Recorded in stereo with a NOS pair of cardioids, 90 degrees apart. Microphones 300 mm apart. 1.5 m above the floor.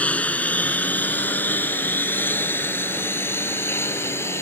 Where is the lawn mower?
5° left; by 4.4 s 10° left.